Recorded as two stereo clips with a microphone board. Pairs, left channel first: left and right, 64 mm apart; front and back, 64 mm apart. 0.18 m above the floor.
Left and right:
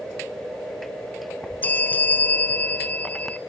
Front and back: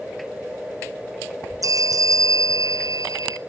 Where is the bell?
155° left, 0.8 m.